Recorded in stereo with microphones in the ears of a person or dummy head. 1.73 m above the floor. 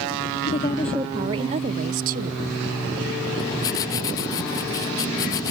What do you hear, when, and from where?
0.5 s a woman speaking: 30° left (ahead or behind); by 2.4 s 50° right (ahead or behind)
3.4 s writing: 20° left (ahead or behind)